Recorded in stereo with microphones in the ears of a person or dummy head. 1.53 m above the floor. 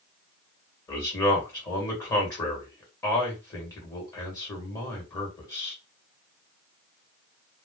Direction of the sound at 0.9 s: 20° left (ahead or behind).